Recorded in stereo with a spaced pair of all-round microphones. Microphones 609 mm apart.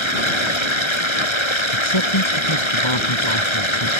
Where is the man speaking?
50° left (ahead or behind).